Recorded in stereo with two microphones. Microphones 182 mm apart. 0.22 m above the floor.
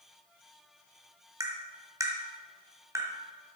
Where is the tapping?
20° right (ahead or behind), 1.5 m.